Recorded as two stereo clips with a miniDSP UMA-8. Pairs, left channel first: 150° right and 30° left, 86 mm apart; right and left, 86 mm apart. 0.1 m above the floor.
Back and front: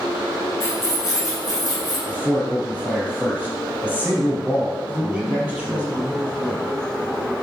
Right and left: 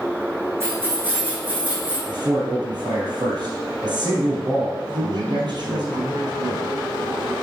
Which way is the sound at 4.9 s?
105° left.